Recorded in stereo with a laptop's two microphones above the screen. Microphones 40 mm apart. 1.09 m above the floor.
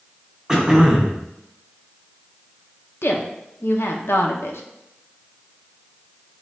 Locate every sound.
0.5 s throat clearing: 10° right (ahead or behind), 0.6 m
3.0 s a woman speaking: 75° left (ahead or behind), 0.6 m